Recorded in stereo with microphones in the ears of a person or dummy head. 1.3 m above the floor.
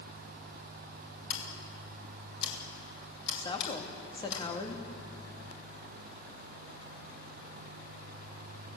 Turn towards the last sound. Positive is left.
turn(degrees=20)  # may be behind; listen again after turning